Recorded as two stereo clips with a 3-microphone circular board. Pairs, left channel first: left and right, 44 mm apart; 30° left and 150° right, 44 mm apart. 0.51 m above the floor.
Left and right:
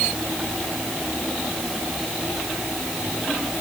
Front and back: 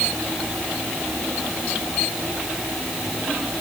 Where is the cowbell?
I don't hear a cowbell.